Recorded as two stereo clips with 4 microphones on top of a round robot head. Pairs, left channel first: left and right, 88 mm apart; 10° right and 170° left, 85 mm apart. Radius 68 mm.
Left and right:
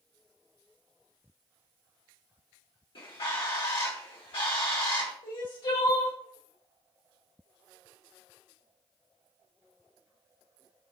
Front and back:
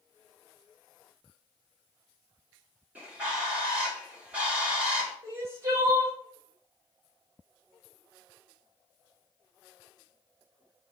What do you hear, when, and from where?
3.0 s a bird: 100° left, 1.8 m
5.2 s crying: 115° left, 1.3 m